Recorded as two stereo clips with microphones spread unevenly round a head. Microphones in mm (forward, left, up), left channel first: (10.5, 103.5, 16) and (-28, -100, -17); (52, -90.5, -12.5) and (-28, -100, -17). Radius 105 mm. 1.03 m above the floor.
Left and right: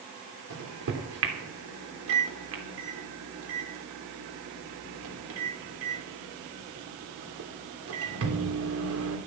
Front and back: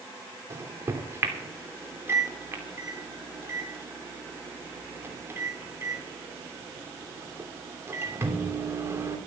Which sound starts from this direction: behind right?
A microwave, at 0.5 s.